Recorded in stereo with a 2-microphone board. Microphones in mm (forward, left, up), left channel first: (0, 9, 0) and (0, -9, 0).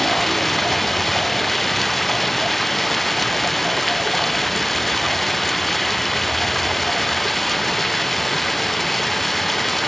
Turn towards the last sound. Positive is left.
turn(degrees=10)  # may be behind; listen again after turning